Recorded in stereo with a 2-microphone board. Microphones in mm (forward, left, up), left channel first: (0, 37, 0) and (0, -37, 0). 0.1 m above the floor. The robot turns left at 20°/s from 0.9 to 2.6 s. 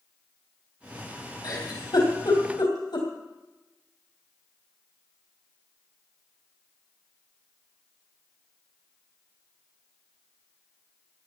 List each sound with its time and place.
1.4 s a giggle: 65° left (ahead or behind), 3.5 m